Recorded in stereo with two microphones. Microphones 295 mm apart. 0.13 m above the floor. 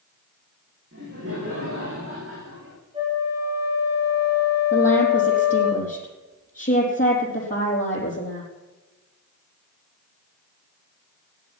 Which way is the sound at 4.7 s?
35° left (ahead or behind).